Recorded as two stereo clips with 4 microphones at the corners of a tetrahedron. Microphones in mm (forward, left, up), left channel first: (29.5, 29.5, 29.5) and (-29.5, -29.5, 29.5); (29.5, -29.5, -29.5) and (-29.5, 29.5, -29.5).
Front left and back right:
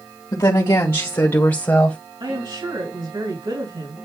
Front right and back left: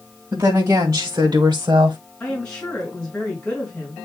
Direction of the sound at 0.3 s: 85° left.